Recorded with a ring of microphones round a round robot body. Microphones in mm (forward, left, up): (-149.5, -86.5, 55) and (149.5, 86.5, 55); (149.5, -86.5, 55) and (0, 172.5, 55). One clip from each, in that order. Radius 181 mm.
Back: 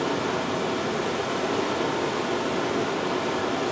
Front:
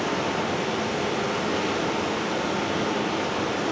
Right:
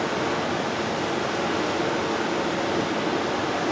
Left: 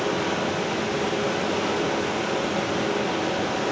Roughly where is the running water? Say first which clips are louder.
Even, even; left.